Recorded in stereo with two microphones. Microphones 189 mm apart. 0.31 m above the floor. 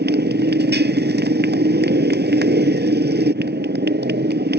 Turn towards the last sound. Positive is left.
turn(degrees=-60)  # may be behind; listen again after turning